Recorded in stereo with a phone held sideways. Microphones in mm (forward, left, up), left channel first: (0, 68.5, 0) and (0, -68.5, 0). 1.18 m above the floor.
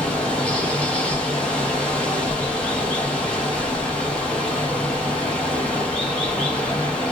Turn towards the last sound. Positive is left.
turn(degrees=10)  # may be behind; listen again after turning